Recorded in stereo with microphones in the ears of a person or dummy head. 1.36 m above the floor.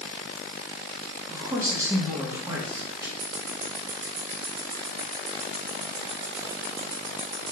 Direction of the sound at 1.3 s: 20° right (ahead or behind).